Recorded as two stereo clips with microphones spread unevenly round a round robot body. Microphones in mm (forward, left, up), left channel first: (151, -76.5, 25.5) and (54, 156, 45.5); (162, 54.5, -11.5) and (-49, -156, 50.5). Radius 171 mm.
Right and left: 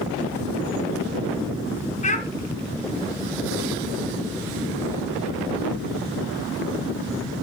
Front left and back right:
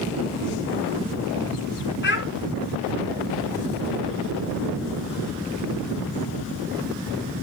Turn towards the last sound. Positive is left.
turn(degrees=-5)